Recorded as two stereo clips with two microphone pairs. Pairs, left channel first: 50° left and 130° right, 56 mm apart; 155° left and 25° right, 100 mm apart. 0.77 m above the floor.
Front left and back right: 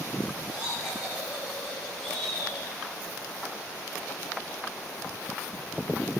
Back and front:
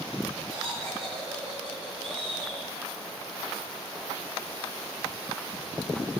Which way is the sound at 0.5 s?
55° right.